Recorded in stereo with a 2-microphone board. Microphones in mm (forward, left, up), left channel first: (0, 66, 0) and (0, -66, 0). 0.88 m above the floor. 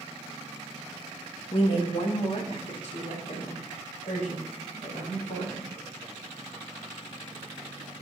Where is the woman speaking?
40° left (ahead or behind), 0.6 m; by 5.7 s 65° left (ahead or behind), 5.5 m.